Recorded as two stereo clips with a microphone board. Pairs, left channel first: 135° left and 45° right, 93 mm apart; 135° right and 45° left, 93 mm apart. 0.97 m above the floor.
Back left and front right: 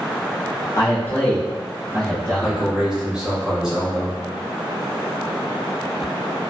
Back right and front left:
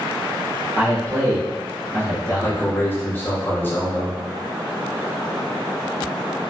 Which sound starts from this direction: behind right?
A man speaking, at 2.4 s.